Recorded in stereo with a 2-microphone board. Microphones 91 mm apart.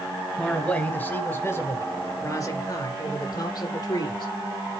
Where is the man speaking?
10° left (ahead or behind), 2 m; by 4.3 s 55° left (ahead or behind), 3.5 m.